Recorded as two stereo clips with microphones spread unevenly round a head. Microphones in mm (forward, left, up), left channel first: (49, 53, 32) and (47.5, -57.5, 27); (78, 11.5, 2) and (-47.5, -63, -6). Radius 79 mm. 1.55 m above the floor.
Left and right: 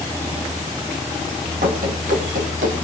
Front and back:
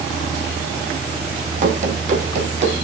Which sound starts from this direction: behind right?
Running footsteps, at 1.6 s.